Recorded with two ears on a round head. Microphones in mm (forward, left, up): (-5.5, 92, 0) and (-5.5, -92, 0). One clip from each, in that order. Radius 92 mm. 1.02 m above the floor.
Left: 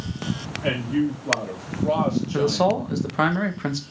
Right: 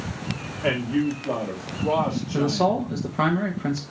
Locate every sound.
0.6 s a man speaking: 5° right (ahead or behind), 2 m; by 2.8 s 30° left (ahead or behind), 1.7 m
2.3 s a man speaking: 45° left (ahead or behind), 1.3 m